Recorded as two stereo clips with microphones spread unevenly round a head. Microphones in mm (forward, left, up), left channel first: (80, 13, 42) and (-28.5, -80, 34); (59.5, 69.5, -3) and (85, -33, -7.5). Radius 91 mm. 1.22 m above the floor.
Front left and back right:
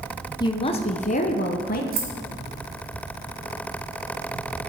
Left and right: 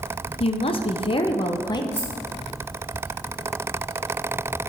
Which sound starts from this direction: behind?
Keys jangling, at 1.9 s.